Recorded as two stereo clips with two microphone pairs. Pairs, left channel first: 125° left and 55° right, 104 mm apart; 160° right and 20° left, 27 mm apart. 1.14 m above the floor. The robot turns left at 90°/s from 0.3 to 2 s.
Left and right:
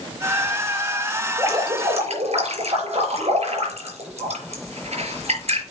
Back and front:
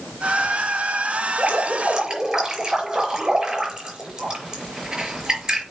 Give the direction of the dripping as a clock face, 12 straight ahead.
12 o'clock.